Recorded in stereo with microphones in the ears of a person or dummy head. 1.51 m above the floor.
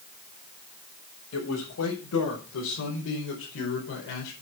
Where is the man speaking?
75° left (ahead or behind), 6 m; by 4.3 s 70° left (ahead or behind), 4.5 m.